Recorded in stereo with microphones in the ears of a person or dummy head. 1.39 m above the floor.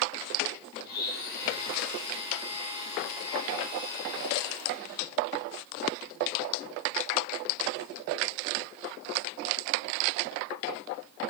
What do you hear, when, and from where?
0.8 s a blender: 65° left (ahead or behind), 4.5 m